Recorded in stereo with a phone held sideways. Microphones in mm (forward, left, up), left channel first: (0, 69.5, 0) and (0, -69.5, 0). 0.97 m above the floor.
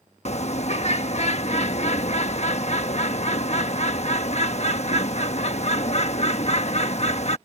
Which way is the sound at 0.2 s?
50° left (ahead or behind).